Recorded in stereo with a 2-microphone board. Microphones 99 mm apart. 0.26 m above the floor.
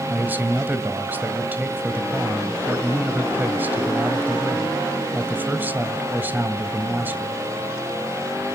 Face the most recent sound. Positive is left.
turn(degrees=-20)  # may be behind; listen again after turning